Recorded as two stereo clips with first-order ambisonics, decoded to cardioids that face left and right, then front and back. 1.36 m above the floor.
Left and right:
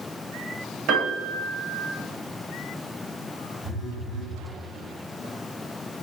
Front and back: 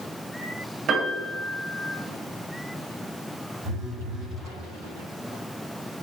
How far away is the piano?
About 1.3 m.